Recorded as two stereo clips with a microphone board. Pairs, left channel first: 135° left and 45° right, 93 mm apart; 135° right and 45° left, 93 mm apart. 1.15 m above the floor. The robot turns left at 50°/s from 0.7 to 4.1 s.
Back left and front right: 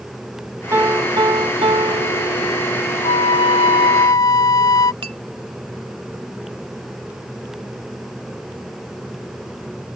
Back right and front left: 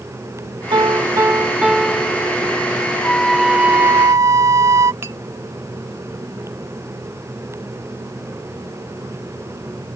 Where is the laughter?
I don't hear laughter.